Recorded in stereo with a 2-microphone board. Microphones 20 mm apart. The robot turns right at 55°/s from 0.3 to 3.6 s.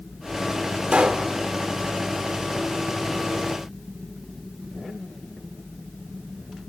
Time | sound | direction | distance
0.9 | a pop | 55° right (ahead or behind) | 1.7 m